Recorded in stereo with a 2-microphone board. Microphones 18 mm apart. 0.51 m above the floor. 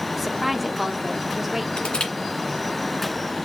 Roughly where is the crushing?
Left.